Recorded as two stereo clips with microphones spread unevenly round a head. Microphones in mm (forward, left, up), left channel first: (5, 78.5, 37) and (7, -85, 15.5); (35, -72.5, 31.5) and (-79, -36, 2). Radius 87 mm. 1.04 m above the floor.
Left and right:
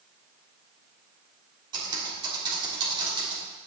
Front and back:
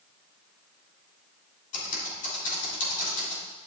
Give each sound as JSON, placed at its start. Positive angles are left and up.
{"t": 1.7, "sound": "typing on a keyboard", "azimuth_deg": -25, "distance_m": 3.0}